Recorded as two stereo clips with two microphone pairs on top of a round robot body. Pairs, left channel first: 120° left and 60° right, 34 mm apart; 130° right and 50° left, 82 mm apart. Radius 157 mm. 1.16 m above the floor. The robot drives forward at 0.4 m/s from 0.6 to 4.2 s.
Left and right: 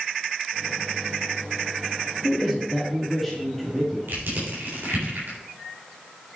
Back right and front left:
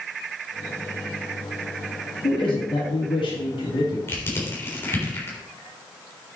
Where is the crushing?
70° right, 3.5 m.